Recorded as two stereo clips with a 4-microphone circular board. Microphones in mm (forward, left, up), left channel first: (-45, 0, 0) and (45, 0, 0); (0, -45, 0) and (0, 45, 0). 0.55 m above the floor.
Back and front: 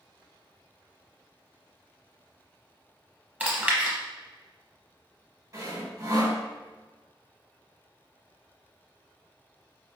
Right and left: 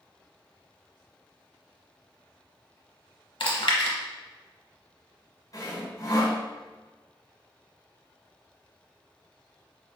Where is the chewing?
70° right, 0.8 m.